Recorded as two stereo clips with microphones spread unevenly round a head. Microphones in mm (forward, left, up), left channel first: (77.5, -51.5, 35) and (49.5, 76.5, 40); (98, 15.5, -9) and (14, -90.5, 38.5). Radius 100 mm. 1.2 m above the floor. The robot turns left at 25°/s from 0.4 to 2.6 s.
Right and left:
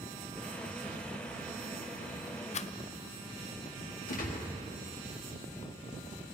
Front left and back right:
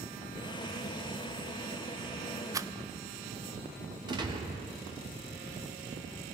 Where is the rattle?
50° right, 0.5 m; by 2.7 s 55° right, 0.5 m.